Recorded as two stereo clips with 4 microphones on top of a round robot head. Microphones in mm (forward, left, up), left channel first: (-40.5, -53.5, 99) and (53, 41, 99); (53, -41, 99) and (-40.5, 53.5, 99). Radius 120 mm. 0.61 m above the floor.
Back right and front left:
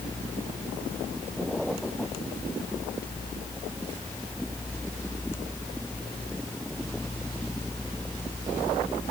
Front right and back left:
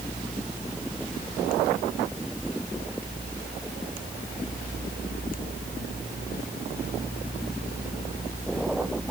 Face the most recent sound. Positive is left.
No sound to turn to.